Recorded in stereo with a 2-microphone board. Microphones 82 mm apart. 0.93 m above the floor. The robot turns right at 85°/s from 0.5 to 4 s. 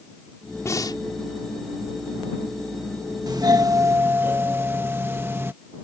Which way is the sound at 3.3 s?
100° right.